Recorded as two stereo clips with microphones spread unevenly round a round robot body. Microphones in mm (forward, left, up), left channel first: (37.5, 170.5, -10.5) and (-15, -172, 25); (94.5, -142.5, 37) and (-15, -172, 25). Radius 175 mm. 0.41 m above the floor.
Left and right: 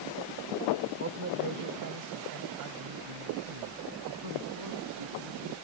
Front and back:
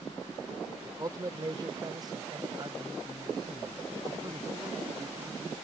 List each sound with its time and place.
0.8 s a man speaking: 140° right; by 5.5 s 110° right